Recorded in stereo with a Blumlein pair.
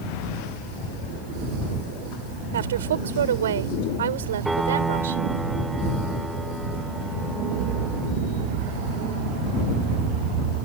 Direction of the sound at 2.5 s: 60° right.